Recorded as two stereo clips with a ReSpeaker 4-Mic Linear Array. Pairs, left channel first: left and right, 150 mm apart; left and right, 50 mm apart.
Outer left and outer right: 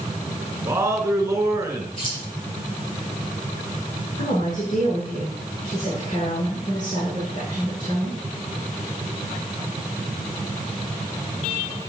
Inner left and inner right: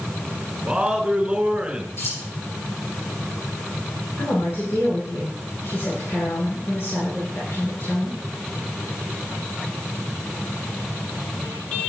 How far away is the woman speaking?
About 6 m.